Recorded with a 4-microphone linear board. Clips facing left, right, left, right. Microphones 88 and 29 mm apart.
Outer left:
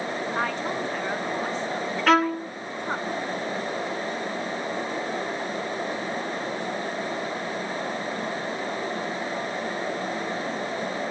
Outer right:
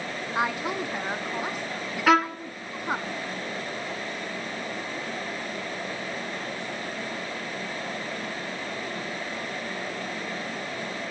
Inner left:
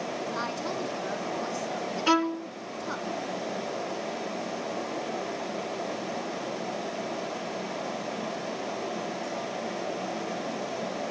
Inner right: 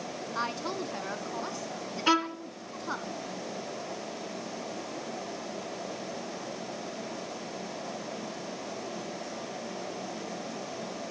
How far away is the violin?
About 2 m.